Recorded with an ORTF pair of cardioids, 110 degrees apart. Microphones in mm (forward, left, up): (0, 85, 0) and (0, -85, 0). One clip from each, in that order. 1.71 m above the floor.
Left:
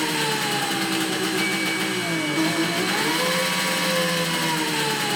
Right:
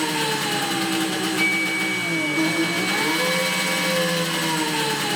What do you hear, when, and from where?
0.0 s an engine running: 5° right, 1.2 m
1.4 s a flute: 35° right, 0.6 m